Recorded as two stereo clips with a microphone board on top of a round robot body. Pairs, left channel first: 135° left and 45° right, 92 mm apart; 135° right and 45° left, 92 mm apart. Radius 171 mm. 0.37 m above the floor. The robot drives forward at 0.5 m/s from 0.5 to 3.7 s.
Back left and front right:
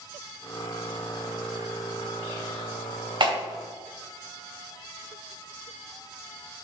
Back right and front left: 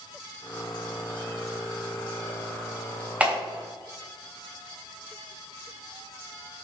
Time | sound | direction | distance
3.2 | a clap | 30° right | 3 m